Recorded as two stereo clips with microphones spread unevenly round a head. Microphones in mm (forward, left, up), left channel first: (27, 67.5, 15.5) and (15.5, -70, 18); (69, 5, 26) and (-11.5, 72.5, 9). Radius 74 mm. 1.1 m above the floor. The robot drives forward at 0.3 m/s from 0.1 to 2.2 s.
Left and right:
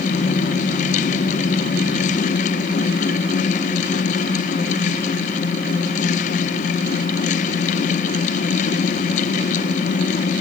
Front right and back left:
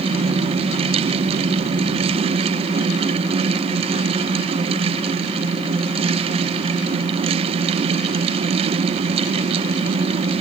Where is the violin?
No violin in this recording.